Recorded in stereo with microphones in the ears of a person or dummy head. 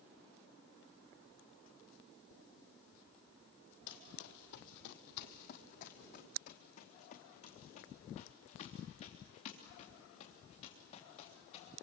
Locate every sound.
3.9 s running footsteps: 45° left (ahead or behind), 1.5 m; by 11.7 s 30° left (ahead or behind), 7 m